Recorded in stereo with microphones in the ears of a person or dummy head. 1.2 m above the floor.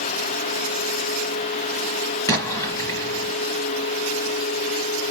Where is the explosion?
15° left (ahead or behind), 1.1 m.